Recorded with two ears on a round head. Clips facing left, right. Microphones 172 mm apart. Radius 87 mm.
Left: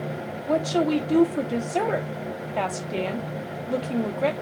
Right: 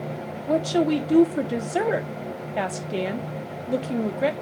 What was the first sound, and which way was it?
A woman speaking, 10° right (ahead or behind).